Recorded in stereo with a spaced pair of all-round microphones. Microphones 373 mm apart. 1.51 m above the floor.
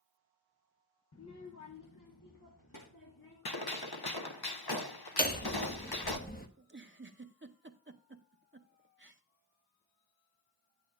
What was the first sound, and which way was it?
A child speaking, 40° left (ahead or behind).